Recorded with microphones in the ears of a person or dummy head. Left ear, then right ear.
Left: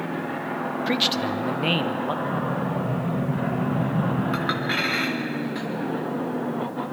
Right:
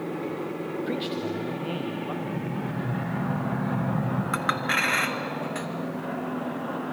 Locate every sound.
0.9 s a man speaking: 30° left (ahead or behind), 1.0 m; by 2.1 s 80° left, 1.4 m
2.2 s an explosion: 80° right, 1.9 m
4.3 s a clink: 30° right (ahead or behind), 1.0 m